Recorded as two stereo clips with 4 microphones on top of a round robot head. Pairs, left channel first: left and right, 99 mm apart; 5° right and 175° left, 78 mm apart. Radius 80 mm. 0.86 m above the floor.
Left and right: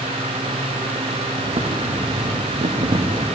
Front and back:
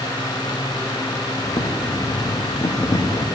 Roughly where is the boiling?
Ahead right.